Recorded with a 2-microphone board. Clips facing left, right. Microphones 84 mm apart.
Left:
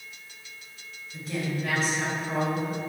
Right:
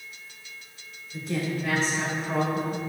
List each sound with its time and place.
1.1 s a woman speaking: 10° right (ahead or behind), 3 m; by 2.8 s 25° right (ahead or behind), 2 m